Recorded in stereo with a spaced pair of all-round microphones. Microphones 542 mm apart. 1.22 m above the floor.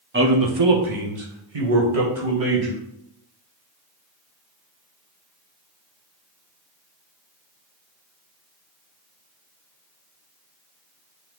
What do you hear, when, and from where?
0.1 s a man speaking: 20° right (ahead or behind), 0.5 m; by 2.8 s 75° right (ahead or behind), 2 m